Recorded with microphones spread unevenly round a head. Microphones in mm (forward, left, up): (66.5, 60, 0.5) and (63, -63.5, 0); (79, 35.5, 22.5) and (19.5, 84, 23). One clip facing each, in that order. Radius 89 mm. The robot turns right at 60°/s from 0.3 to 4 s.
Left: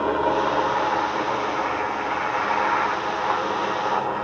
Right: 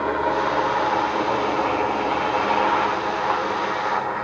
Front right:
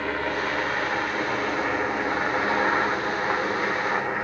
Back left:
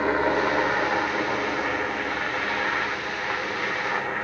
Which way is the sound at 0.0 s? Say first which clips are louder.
Left 1 dB, back left 5 dB; 160° left.